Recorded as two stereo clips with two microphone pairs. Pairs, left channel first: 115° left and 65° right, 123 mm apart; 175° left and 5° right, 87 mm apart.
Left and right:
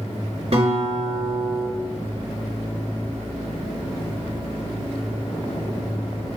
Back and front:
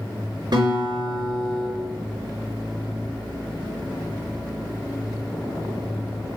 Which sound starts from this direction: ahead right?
A guitar, at 0.5 s.